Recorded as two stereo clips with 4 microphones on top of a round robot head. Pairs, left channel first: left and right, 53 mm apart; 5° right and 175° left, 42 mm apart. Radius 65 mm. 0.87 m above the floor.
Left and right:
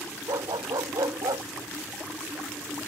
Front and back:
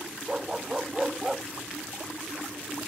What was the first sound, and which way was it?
A dog barking, 105° right.